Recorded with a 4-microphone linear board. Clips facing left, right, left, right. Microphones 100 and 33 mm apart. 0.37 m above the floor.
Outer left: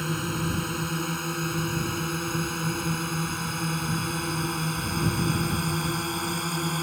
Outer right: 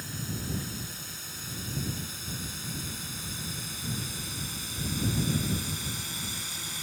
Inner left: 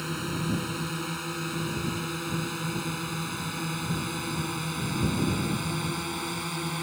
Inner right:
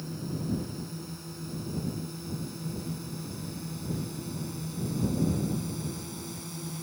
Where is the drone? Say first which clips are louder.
Outer left 9 dB, inner left 5 dB; 65° left (ahead or behind); by 6.8 s 55° left (ahead or behind).